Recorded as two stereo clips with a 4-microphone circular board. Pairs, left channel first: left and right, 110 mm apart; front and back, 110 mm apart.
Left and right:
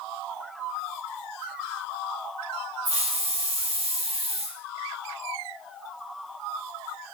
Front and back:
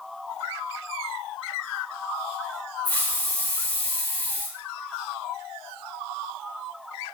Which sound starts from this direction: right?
A hiss, at 2.9 s.